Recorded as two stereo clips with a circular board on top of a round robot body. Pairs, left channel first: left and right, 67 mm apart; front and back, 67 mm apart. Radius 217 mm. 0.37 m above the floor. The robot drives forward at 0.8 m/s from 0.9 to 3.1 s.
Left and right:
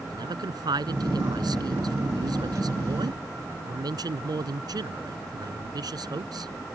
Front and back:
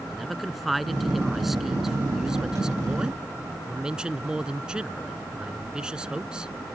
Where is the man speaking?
90° right; by 6.5 s 100° right.